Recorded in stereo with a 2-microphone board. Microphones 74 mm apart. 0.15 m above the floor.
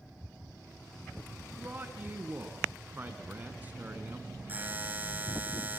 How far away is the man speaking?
About 1.5 m.